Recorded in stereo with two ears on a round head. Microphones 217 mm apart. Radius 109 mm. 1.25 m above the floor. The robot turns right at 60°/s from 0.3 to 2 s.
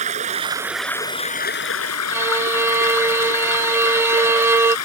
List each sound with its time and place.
0.0 s running water: 30° right; by 4.9 s 70° left
2.1 s a violin: 10° right (ahead or behind)